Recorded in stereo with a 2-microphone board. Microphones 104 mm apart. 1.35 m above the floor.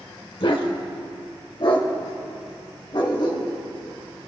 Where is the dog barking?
60° left (ahead or behind), 1.7 m; by 3.5 s 45° left (ahead or behind), 3 m.